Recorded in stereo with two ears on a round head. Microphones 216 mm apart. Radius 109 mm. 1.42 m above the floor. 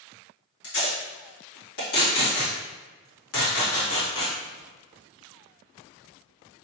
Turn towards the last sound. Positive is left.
turn(degrees=60)  # may be behind; listen again after turning